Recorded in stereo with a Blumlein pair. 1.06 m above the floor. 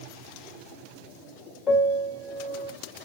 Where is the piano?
25° left, 1.6 m.